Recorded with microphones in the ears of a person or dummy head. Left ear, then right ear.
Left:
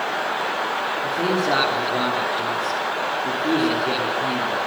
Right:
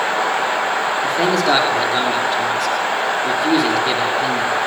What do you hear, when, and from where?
1.0 s a man speaking: 40° right (ahead or behind), 5.5 m